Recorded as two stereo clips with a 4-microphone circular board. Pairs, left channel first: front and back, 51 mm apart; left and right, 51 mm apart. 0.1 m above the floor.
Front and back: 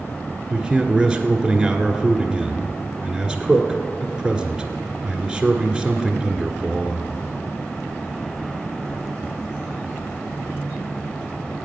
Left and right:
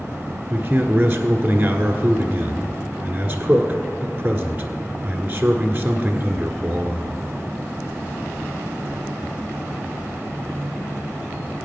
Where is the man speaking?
100° right, 1.2 m.